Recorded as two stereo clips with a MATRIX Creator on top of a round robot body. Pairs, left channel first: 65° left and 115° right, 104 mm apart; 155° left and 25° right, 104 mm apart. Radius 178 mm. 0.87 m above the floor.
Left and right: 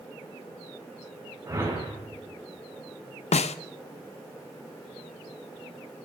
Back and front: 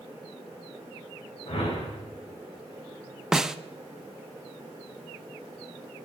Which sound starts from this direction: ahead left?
A snare drum, at 3.3 s.